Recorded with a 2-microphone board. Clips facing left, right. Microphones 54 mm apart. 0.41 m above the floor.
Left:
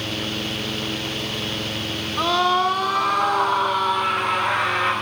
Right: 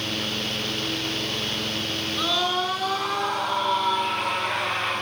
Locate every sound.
2.2 s a scream: 60° left (ahead or behind), 4.5 m; by 4.9 s 75° left (ahead or behind), 7 m